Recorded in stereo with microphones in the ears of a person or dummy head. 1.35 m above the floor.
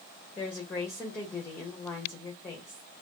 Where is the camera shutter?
I don't hear a camera shutter.